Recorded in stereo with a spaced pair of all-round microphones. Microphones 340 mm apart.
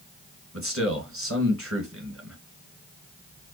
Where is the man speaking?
40° right (ahead or behind), 2 m.